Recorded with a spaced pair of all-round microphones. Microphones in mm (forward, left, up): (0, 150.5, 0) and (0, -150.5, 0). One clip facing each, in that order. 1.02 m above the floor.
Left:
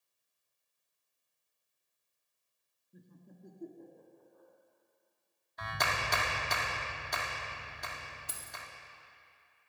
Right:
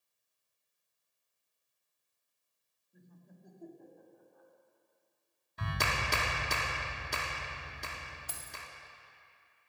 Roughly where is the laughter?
Left.